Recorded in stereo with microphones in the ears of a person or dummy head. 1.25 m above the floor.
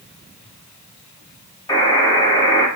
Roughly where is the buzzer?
Centre.